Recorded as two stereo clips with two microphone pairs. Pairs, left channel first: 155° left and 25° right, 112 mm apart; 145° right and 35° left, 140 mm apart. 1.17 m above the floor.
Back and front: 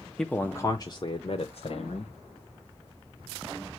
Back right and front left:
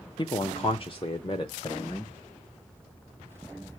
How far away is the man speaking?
About 0.6 m.